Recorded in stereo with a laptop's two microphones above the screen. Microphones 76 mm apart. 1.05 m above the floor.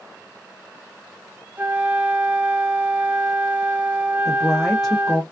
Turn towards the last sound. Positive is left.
turn(degrees=5)  # may be behind; listen again after turning